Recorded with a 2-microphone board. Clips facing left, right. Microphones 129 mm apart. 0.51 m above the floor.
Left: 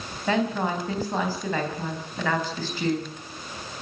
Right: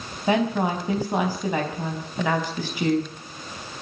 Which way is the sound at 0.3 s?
15° right (ahead or behind).